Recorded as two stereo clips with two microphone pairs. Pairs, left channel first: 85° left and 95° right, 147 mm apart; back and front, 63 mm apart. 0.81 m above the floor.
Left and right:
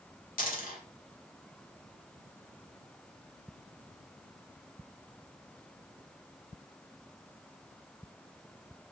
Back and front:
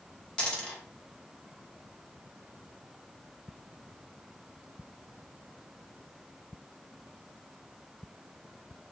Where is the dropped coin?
105° left, 1.1 m.